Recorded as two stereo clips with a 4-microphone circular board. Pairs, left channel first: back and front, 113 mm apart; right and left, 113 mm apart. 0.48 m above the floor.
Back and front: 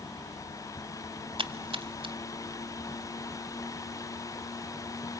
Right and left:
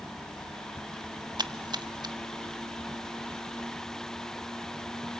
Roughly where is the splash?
Ahead left.